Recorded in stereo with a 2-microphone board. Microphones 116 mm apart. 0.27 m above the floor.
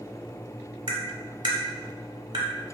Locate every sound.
0.9 s tapping: 45° right (ahead or behind), 1.0 m